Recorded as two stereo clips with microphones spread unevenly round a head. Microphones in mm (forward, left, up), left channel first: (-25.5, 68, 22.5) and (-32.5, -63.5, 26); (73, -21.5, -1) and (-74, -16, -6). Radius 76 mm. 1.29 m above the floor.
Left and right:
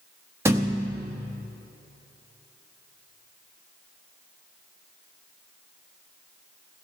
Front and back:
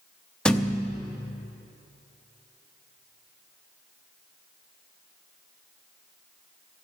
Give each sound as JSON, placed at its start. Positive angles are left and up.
{"t": 0.5, "sound": "a thud", "azimuth_deg": -75, "distance_m": 0.6}